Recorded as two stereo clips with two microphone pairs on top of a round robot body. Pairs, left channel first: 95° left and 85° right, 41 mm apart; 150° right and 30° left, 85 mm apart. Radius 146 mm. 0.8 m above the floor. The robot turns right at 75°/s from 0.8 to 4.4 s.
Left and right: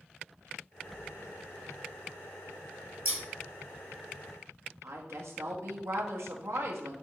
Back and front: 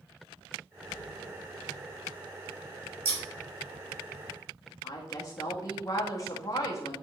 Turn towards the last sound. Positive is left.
turn(degrees=-100)